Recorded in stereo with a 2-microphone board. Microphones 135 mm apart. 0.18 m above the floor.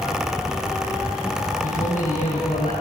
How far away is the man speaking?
About 4 m.